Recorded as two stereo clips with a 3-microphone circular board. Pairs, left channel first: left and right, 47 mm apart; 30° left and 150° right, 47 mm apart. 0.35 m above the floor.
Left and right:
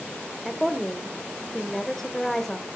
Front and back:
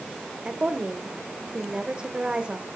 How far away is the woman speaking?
About 1.0 m.